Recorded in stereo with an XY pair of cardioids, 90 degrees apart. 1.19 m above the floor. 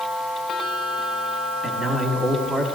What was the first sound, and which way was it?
A man speaking, 45° right.